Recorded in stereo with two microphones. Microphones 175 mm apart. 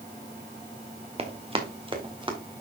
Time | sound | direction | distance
1.2 | running footsteps | 35° right (ahead or behind) | 2 m